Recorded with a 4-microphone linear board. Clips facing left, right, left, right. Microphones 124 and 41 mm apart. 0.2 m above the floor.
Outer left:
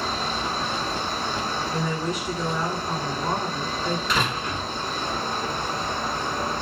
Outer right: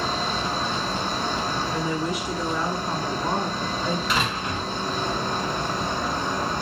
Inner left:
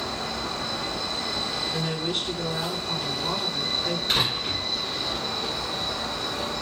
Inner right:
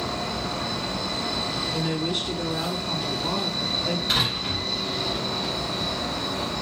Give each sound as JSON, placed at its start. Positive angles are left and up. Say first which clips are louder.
{"t": 0.0, "sound": "an insect", "louder": "outer right 1 dB, inner right 2 dB", "side_deg": -35, "distance_m": 2.0}
{"t": 1.7, "sound": "a woman speaking", "louder": "outer right 1 dB, inner right 3 dB", "side_deg": 0, "distance_m": 1.6}
{"t": 4.1, "sound": "a door slam", "louder": "even, even", "side_deg": -10, "distance_m": 2.5}